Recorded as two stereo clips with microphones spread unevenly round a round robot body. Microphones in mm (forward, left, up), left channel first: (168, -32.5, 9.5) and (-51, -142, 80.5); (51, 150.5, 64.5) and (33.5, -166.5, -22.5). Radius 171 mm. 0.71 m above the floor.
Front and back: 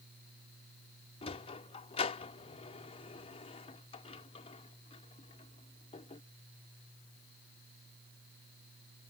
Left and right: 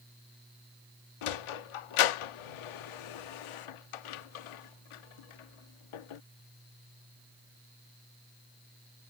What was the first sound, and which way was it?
A sliding door, 100° left.